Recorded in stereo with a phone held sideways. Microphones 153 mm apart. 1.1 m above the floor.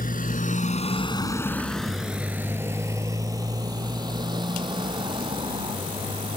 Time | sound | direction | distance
0.0 | a motorcycle | 80° left | ?